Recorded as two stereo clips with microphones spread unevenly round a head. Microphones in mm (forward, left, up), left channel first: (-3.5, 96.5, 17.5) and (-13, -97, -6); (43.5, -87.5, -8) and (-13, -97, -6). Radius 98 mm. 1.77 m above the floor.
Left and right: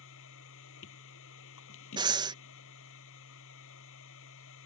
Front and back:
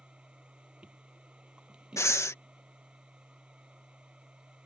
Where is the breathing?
25° right.